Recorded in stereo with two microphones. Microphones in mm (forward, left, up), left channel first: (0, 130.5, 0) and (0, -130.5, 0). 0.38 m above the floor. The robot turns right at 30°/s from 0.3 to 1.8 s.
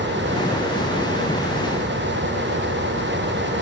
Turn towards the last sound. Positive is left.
No sound to turn to.